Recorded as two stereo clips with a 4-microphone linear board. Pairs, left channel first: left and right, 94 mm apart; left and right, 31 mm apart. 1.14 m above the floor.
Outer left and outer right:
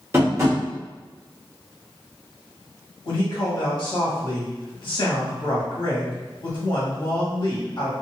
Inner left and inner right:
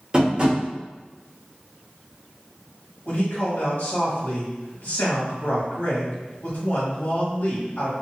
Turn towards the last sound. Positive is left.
turn(degrees=65)  # may be behind; listen again after turning